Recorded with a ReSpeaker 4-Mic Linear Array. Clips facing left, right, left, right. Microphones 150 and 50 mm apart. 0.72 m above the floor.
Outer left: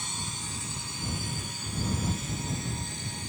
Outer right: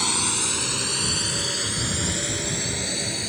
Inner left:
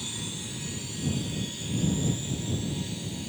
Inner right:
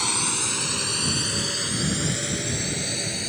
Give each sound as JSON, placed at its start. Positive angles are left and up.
{"t": 0.0, "sound": "a drone", "side_deg": -80}